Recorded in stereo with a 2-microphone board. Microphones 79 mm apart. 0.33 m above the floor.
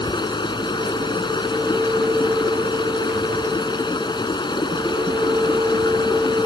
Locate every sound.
0.0 s running water: 70° left (ahead or behind)